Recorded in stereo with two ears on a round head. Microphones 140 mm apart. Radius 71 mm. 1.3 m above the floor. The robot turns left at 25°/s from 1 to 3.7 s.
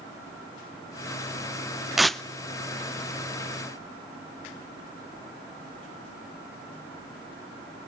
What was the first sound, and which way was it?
Tearing paper, centre (ahead or behind).